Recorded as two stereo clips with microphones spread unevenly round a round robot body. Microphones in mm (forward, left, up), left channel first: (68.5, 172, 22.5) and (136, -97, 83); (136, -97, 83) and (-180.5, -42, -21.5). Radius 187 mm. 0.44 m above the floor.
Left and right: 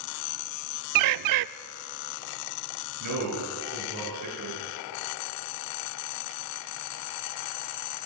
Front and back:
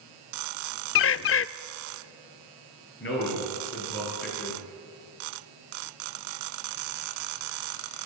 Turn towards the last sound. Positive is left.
turn(degrees=-65)